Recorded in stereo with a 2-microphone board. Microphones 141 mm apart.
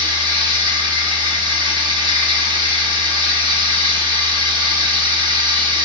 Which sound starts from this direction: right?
Running water, at 0.0 s.